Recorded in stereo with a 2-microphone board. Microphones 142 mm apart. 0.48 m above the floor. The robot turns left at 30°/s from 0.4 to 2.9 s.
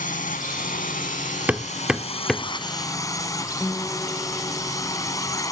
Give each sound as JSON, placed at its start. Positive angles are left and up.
{"t": 0.0, "sound": "a drone", "azimuth_deg": 100}
{"t": 1.5, "sound": "hammering", "side_deg": -10}
{"t": 3.6, "sound": "a guitar", "side_deg": 15}